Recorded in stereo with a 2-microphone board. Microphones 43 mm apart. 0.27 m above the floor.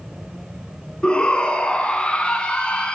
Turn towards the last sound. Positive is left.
turn(degrees=20)  # may be behind; listen again after turning